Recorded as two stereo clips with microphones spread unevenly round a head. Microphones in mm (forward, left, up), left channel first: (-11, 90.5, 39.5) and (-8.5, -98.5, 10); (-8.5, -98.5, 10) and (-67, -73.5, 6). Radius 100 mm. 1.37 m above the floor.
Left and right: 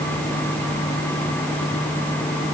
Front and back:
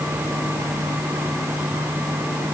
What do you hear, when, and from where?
Only background noise.